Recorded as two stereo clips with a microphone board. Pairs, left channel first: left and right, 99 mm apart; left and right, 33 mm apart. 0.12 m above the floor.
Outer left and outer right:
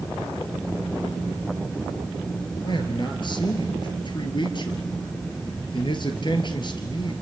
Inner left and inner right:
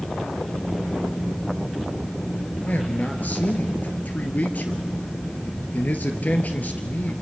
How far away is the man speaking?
About 2.5 m.